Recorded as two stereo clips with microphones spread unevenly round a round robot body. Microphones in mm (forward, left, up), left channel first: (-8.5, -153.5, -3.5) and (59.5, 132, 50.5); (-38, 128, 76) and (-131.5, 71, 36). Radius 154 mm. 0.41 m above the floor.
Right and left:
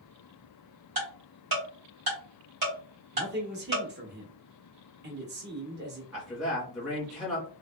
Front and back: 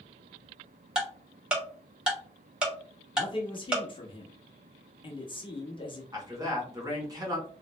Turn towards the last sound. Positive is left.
turn(degrees=170)